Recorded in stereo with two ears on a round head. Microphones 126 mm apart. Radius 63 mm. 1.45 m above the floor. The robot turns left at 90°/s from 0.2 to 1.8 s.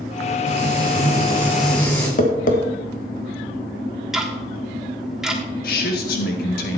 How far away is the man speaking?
About 2 m.